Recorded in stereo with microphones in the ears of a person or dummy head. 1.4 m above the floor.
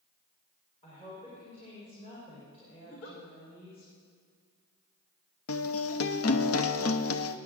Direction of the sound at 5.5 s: 70° left (ahead or behind).